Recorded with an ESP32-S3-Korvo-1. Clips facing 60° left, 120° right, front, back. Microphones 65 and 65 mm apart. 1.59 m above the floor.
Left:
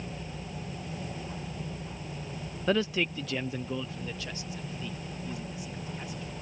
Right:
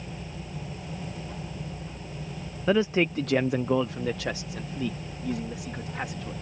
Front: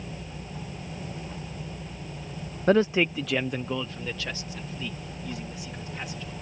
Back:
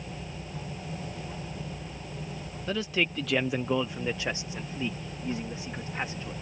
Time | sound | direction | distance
2.7 | a man speaking | 40° right | ?